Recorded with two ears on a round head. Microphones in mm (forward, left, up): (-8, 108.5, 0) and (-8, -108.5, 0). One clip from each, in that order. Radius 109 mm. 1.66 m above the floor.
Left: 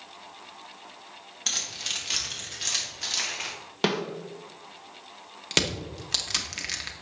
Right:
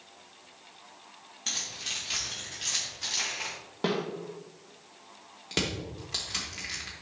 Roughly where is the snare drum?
Left.